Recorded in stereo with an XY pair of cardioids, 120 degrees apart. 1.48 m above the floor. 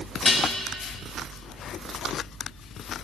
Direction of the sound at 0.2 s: 20° left.